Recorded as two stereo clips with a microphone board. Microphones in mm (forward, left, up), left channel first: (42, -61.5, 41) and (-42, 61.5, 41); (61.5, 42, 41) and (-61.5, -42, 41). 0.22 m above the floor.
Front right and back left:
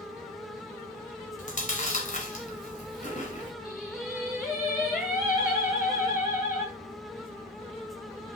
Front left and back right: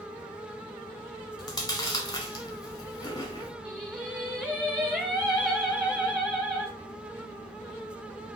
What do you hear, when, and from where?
1.4 s chewing: 30° right, 1.2 m
3.6 s singing: 60° right, 2.5 m